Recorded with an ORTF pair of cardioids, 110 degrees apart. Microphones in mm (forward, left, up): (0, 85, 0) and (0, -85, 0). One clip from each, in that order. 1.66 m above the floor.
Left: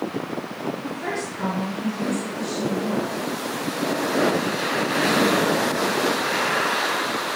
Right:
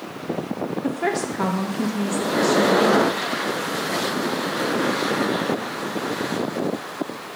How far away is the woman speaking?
About 0.9 m.